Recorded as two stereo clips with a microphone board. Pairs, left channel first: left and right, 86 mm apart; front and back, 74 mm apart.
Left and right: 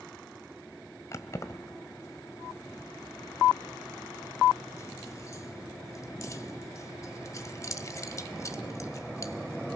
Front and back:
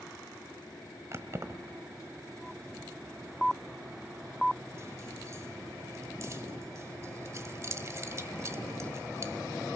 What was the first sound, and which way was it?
Keys jangling, 135° left.